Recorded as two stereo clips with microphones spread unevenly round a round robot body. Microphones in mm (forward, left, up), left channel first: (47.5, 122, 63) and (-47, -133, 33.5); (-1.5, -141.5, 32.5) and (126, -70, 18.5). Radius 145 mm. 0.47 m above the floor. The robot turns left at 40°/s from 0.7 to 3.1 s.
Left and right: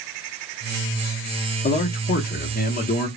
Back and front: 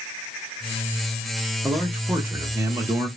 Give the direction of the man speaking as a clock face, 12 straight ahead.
9 o'clock.